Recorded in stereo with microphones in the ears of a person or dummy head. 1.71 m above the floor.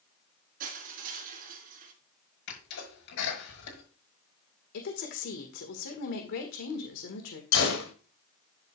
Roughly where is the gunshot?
Left.